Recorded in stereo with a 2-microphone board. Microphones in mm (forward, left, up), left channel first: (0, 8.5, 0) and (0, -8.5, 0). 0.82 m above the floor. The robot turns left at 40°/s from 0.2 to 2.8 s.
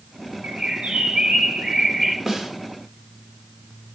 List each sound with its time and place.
0.4 s a bird: 75° right, 1.3 m; by 2.2 s 140° right, 1.3 m
2.3 s a snare drum: 30° right (ahead or behind), 1.0 m; by 2.5 s 35° right (ahead or behind), 1.0 m